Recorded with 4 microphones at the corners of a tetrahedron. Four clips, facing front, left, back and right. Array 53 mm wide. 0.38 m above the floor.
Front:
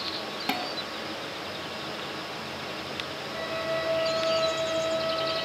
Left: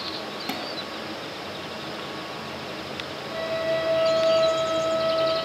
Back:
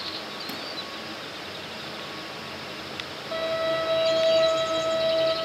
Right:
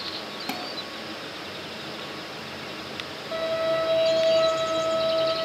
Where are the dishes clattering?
Straight ahead, 1.5 m.